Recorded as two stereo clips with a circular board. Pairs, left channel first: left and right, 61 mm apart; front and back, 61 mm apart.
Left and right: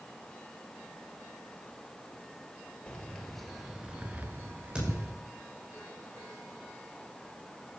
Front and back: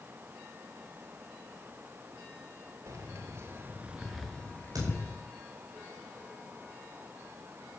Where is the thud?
165° right, 7.5 m.